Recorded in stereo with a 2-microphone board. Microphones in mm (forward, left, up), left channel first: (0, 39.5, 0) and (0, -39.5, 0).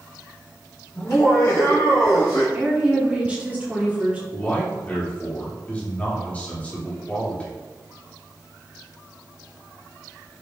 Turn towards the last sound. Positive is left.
turn(degrees=15)  # may be behind; listen again after turning